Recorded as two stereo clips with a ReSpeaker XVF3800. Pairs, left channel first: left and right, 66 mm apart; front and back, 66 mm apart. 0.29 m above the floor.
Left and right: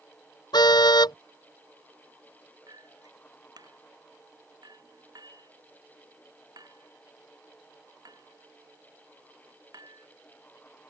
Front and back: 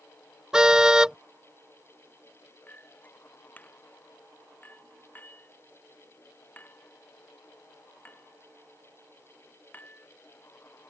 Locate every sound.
0.5 s a car horn: 100° left
2.7 s a clink: 65° right